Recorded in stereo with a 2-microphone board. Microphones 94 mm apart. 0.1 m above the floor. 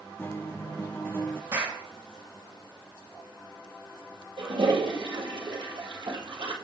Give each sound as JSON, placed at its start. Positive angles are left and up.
{"t": 0.2, "sound": "a guitar", "side_deg": 25, "distance_m": 0.6}
{"t": 1.5, "sound": "a clap", "side_deg": -30, "distance_m": 2.5}
{"t": 4.4, "sound": "a toilet flushing", "side_deg": -60, "distance_m": 2.0}